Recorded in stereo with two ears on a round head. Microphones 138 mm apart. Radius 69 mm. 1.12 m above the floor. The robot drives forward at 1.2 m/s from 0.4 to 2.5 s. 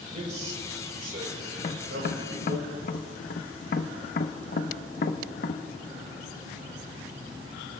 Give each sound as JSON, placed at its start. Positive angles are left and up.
{"t": 0.1, "sound": "a man speaking", "side_deg": -50, "distance_m": 4.0}
{"t": 1.6, "sound": "tapping", "side_deg": 35, "distance_m": 0.9}